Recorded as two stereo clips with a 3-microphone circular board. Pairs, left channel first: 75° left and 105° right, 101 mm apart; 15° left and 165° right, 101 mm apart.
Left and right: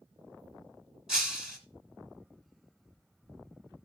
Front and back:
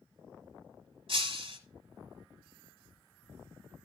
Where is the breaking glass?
170° left, 1.9 m.